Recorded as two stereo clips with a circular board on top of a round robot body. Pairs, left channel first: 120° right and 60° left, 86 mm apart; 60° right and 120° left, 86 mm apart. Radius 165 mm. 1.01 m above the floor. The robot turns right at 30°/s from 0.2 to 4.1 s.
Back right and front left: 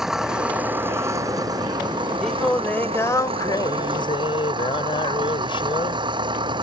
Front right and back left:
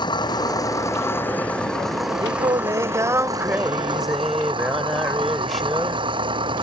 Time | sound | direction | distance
0.0 | an engine running | 25° right | ?
2.2 | singing | 155° left | ?